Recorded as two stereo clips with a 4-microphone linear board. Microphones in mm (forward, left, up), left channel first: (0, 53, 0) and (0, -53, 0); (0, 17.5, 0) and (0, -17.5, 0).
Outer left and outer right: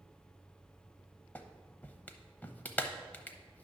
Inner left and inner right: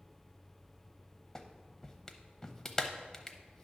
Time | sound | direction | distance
1.4 | a clap | 20° left (ahead or behind) | 0.7 m